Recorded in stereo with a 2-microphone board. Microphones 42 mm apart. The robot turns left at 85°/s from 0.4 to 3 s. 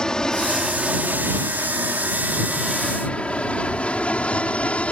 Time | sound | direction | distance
0.0 | an aircraft | 15° left (ahead or behind) | ?